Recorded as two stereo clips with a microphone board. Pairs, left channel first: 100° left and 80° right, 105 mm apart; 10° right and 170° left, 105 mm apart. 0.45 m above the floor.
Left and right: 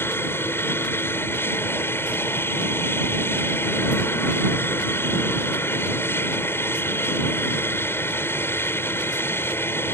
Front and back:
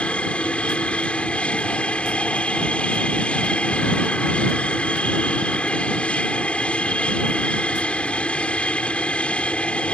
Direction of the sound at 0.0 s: 60° left.